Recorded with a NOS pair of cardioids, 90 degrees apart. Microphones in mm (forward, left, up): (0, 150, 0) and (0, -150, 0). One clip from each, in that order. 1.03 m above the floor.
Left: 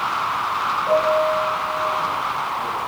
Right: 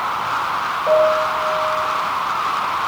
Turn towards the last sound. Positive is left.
turn(degrees=-35)